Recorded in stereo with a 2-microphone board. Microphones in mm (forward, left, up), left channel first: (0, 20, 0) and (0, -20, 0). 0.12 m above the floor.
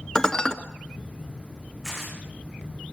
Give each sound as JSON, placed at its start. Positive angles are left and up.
{"t": 0.1, "sound": "dishes clattering", "side_deg": 15, "distance_m": 0.9}
{"t": 1.8, "sound": "tearing paper", "side_deg": 15, "distance_m": 5.5}